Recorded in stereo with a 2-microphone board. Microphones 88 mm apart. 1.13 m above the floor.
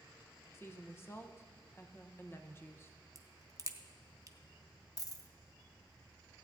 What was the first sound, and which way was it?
A woman speaking, 30° left (ahead or behind).